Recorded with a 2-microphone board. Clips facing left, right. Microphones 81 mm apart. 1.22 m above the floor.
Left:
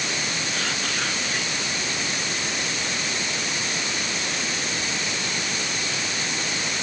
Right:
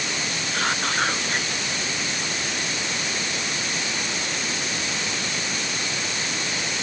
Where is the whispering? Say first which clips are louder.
Right 8 dB; 40° right (ahead or behind).